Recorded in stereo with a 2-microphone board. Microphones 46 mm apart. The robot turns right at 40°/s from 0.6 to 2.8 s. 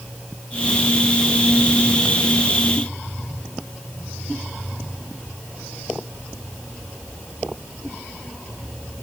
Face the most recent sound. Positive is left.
No sound to turn to.